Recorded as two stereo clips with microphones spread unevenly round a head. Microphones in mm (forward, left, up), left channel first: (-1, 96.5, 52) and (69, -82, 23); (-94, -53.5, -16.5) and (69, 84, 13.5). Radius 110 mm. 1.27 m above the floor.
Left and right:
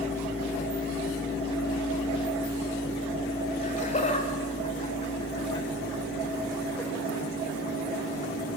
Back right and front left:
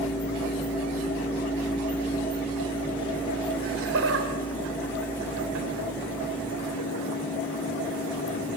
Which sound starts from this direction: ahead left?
Laughter, at 3.6 s.